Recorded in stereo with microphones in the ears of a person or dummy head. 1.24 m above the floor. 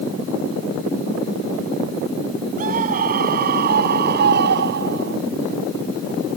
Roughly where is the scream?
Right.